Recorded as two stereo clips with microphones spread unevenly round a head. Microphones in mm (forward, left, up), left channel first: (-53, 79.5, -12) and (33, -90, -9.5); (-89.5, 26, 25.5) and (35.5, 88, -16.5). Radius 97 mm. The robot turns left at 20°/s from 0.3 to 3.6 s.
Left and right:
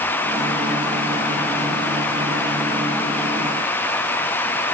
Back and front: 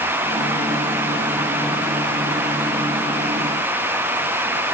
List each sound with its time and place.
Only background noise.